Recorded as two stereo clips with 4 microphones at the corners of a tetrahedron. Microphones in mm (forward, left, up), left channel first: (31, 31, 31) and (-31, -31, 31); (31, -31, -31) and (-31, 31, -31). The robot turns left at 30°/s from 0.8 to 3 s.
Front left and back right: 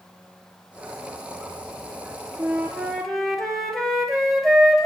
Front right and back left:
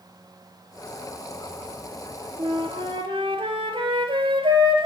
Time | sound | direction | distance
2.4 | a flute | 155° left | 2 m